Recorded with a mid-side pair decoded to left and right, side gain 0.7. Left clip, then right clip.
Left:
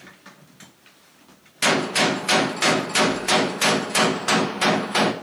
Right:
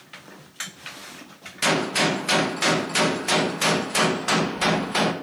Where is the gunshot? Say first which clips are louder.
Left 2 dB; 10° left, 0.9 m.